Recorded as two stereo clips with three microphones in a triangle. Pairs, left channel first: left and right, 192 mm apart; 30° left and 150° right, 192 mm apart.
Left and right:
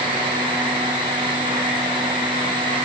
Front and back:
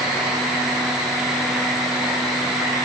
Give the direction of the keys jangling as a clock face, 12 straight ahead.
I don't hear keys jangling.